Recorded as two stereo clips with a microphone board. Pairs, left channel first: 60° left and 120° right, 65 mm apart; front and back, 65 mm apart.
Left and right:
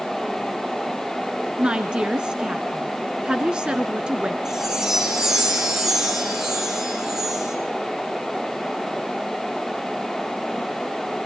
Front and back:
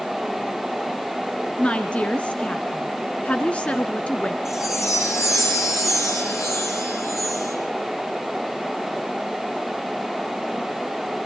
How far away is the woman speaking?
About 1.3 m.